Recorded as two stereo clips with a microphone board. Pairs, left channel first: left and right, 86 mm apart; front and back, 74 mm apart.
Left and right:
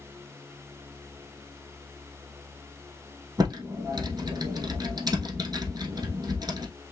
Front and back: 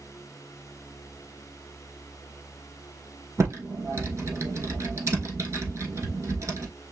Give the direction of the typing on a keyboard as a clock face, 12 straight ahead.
4 o'clock.